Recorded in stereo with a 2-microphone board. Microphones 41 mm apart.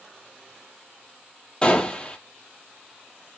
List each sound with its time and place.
1.6 s a gunshot: 25° left (ahead or behind), 0.5 m